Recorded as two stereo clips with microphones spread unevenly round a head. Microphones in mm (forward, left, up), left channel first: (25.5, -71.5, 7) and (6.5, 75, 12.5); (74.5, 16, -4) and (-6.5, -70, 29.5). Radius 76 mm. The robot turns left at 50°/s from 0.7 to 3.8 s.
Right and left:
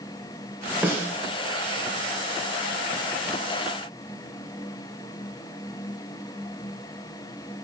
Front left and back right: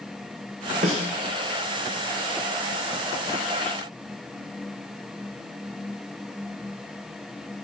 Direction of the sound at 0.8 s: Straight behind.